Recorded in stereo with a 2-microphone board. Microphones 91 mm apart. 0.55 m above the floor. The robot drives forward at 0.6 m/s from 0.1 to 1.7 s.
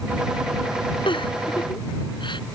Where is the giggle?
65° left (ahead or behind); by 2.4 s 60° left (ahead or behind).